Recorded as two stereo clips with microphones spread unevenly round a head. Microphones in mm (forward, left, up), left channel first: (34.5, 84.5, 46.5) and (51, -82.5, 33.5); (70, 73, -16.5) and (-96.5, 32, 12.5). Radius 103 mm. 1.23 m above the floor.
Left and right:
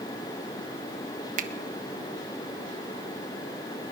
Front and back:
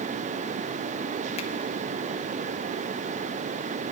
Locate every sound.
1.4 s a finger snap: 45° right, 0.8 m